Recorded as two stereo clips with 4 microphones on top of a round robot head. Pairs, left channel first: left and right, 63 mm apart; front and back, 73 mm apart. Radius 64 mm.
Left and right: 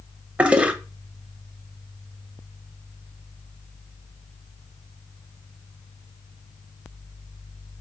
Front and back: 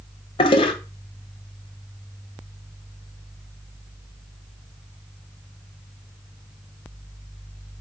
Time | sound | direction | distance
0.4 | a toilet flushing | 20° right | 0.8 m